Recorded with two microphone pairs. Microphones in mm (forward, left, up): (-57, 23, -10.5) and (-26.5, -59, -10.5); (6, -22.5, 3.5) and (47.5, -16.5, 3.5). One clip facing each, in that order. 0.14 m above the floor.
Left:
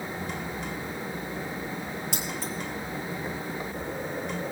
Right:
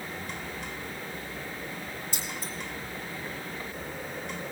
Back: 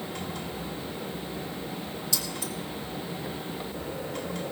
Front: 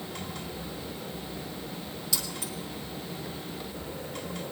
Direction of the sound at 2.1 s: 95° left.